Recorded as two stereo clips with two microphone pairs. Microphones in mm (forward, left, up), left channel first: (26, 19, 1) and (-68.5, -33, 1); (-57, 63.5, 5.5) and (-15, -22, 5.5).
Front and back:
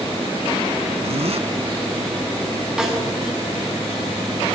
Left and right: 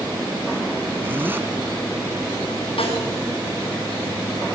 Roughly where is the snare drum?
Behind left.